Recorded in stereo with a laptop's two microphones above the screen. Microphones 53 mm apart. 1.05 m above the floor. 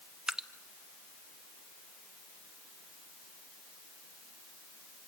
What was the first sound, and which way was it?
Dripping, 5° right (ahead or behind).